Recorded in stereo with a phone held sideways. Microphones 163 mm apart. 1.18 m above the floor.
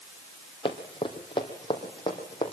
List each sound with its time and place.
0.7 s running footsteps: 30° left (ahead or behind), 2.5 m